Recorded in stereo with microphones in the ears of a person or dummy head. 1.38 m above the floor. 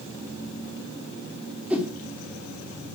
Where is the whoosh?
5° right (ahead or behind), 3.5 m.